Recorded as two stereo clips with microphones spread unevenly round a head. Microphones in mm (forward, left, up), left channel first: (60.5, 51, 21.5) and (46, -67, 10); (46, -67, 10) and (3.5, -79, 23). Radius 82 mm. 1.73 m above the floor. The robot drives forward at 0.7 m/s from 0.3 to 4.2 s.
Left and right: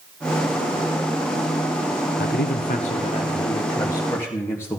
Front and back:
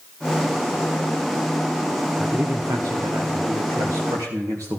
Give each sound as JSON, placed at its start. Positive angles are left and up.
{"t": 2.2, "sound": "a man speaking", "azimuth_deg": 105, "distance_m": 0.6}